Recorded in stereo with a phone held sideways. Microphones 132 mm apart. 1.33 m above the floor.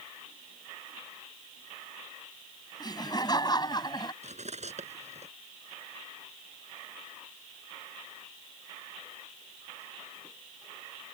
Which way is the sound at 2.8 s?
30° left (ahead or behind).